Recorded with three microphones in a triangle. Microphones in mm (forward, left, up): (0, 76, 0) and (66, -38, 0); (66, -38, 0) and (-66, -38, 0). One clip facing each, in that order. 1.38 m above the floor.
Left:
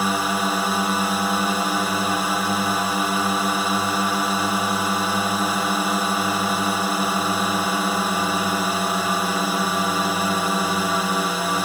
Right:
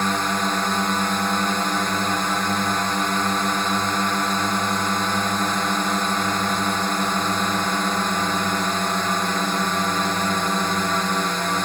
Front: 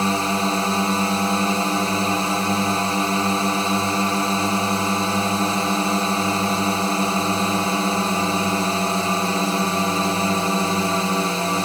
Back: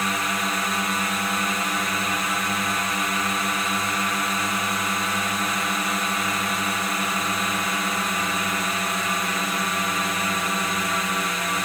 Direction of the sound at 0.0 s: 40° left.